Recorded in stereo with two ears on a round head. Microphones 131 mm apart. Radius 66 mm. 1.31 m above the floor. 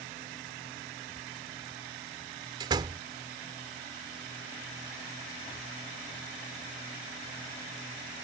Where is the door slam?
30° right (ahead or behind).